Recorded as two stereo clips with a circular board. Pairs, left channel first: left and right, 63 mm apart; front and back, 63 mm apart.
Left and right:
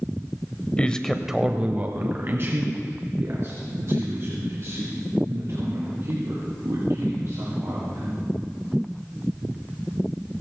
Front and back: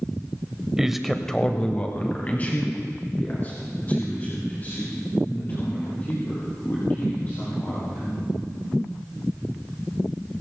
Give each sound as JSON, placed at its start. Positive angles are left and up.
{"t": 0.8, "sound": "a man speaking", "azimuth_deg": 115, "distance_m": 1.0}